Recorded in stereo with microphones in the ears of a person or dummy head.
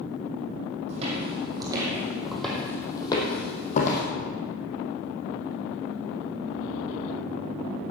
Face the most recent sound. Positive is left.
turn(degrees=50)  # may be behind; listen again after turning